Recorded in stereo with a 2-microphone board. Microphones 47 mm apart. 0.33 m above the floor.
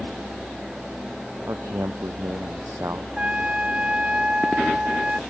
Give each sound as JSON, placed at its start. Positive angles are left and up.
{"t": 1.5, "sound": "a man speaking", "side_deg": -80}
{"t": 3.2, "sound": "a trumpet", "side_deg": -25}